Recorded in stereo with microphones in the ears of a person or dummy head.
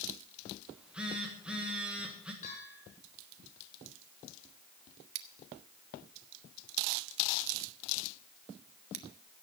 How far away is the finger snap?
No finger snap in this recording.